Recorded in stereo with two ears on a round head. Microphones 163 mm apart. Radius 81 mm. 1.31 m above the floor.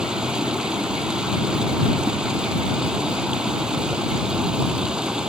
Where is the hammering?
I don't hear hammering.